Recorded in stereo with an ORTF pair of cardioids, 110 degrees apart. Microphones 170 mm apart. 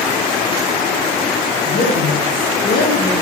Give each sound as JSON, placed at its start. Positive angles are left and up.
{"t": 1.6, "sound": "a woman speaking", "azimuth_deg": 70, "distance_m": 3.5}